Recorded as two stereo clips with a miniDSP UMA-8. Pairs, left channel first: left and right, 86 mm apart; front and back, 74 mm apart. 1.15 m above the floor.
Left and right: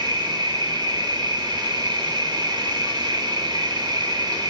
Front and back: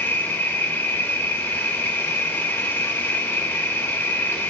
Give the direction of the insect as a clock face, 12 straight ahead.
2 o'clock.